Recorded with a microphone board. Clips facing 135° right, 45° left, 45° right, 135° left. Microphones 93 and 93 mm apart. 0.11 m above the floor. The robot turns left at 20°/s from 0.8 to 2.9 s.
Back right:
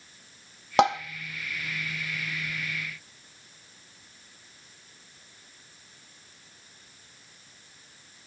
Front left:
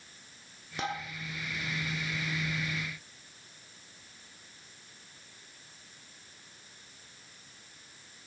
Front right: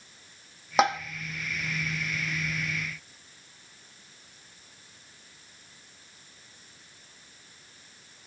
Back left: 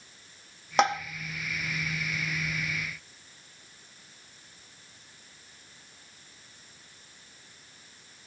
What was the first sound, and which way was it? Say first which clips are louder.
Tapping: back right 14 dB, front right 1 dB; 130° right.